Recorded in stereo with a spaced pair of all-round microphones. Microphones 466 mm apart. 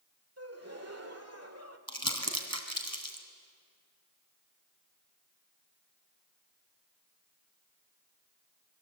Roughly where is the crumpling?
Right.